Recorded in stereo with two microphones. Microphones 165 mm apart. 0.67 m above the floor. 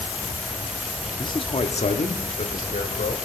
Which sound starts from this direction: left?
A man speaking, at 1.2 s.